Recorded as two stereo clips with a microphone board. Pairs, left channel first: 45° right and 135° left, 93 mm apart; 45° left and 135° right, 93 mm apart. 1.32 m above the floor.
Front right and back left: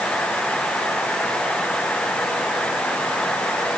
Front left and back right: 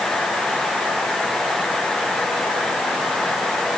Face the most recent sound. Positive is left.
No sound to turn to.